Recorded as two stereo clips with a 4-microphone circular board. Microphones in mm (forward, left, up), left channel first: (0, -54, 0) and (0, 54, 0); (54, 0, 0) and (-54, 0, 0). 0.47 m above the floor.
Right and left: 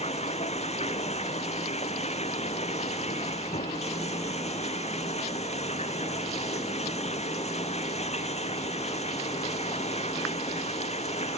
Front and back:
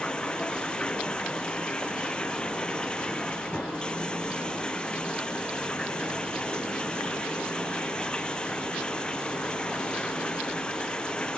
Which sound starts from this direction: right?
Running water, at 0.0 s.